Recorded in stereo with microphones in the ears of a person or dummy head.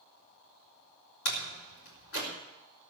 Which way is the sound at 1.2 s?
80° left.